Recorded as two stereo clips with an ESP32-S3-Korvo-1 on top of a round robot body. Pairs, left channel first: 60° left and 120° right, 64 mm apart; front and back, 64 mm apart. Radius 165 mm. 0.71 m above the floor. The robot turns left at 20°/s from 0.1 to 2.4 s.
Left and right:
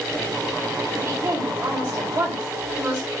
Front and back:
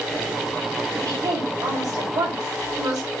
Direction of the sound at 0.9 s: 145° right.